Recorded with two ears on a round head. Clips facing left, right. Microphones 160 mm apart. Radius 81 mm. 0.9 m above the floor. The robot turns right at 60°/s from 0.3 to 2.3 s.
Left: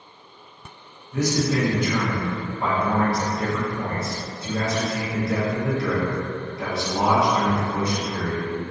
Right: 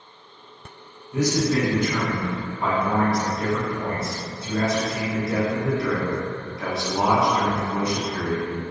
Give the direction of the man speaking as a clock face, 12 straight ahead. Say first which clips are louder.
Right 1 dB; 1 o'clock.